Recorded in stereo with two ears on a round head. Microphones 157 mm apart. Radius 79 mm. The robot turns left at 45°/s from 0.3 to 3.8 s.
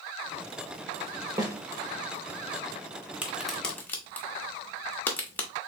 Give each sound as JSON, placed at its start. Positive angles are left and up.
{"t": 1.4, "sound": "a snare drum", "side_deg": -20, "distance_m": 0.9}
{"t": 3.2, "sound": "a crack", "side_deg": -10, "distance_m": 1.2}